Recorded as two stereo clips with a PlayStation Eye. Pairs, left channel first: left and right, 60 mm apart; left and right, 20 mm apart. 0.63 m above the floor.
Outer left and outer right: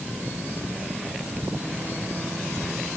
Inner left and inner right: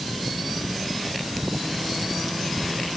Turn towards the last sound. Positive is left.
No sound to turn to.